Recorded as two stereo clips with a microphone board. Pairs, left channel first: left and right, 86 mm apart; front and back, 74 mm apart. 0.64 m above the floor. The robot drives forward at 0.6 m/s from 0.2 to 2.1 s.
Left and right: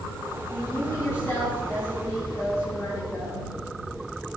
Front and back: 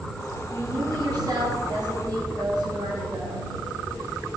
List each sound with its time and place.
0.5 s a woman speaking: 160° left, 7 m; by 3.5 s 165° left, 8 m